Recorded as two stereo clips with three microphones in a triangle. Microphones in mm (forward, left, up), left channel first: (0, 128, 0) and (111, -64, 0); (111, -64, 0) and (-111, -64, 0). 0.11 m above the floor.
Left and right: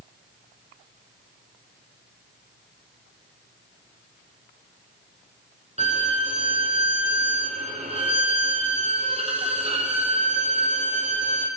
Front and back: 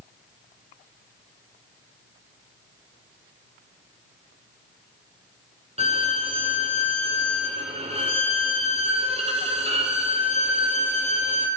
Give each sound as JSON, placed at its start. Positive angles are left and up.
{"t": 5.8, "sound": "a violin", "azimuth_deg": -120, "distance_m": 0.9}